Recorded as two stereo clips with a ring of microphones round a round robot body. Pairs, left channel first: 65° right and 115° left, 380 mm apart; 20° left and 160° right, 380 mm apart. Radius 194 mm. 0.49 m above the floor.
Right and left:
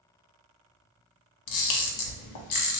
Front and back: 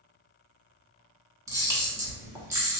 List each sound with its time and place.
1.5 s a camera shutter: 75° right, 0.6 m